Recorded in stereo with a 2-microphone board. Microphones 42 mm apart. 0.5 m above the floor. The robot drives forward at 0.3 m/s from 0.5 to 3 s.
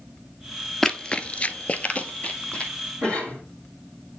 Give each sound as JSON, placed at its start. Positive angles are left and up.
{"t": 0.8, "sound": "running footsteps", "side_deg": 10, "distance_m": 0.6}
{"t": 3.0, "sound": "a cough", "side_deg": 25, "distance_m": 2.5}